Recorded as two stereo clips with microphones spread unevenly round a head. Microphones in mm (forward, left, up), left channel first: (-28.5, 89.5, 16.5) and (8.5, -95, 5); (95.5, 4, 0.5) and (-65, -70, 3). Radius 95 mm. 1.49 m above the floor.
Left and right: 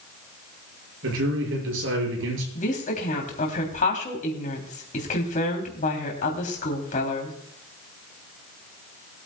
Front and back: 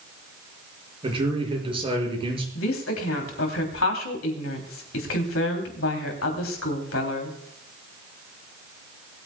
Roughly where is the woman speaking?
Ahead left.